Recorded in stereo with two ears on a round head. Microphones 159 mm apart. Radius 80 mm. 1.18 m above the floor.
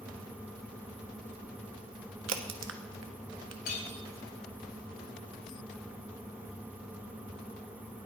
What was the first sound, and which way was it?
A crack, 80° right.